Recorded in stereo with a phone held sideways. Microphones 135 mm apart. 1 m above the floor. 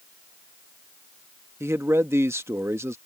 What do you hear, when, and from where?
1.6 s a man speaking: 20° right (ahead or behind)